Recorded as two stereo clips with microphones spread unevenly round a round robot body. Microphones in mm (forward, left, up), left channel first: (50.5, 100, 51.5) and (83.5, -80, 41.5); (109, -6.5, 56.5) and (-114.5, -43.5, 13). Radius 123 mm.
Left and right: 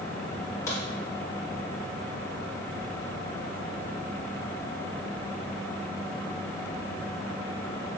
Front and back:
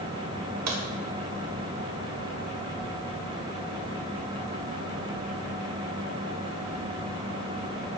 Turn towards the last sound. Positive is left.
turn(degrees=180)